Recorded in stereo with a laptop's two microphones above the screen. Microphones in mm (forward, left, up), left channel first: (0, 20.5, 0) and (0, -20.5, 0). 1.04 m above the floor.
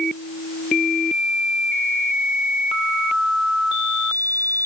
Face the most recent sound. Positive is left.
No sound to turn to.